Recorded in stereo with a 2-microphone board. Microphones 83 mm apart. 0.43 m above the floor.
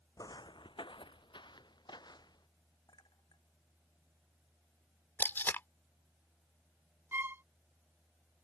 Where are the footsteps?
45° left (ahead or behind); by 2.5 s 55° left (ahead or behind).